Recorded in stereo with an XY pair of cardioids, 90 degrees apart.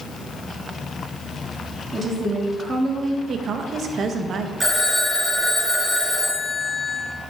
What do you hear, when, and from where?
1.9 s a woman speaking: 40° right, 1.7 m
3.3 s a woman speaking: 65° right, 0.8 m
4.6 s a phone ringing: 15° right, 1.9 m